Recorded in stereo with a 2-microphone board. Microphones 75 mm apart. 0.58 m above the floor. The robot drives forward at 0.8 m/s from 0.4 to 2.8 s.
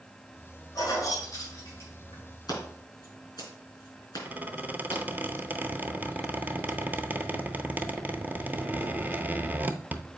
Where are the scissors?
55° left (ahead or behind), 4 m.